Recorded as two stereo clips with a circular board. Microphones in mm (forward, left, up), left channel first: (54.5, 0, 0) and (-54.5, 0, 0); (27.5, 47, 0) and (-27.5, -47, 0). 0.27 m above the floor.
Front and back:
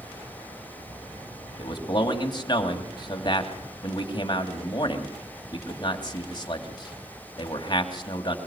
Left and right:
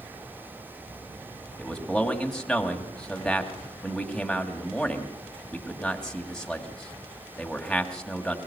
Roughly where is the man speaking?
Ahead.